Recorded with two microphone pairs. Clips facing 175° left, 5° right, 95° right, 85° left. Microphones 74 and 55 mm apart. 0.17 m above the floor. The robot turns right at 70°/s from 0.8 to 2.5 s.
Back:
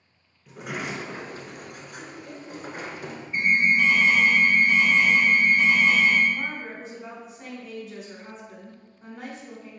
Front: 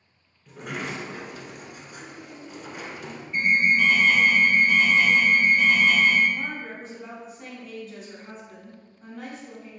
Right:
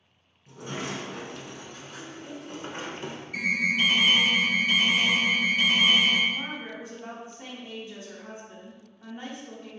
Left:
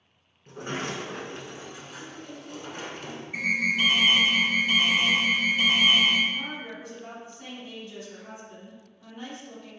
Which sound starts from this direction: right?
A woman speaking, at 6.3 s.